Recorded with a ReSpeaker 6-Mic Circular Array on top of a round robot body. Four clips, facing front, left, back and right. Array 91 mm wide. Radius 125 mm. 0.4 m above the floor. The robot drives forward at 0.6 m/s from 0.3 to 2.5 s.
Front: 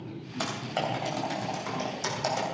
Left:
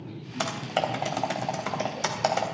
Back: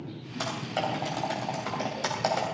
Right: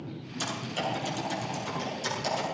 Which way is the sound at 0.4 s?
85° left.